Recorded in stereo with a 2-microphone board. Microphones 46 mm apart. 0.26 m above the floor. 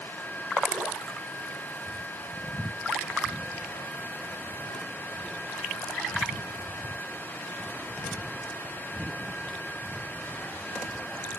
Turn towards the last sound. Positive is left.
No sound to turn to.